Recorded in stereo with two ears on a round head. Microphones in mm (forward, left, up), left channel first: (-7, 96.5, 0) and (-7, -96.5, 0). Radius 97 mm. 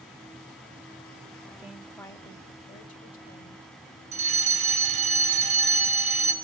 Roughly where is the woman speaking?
Centre.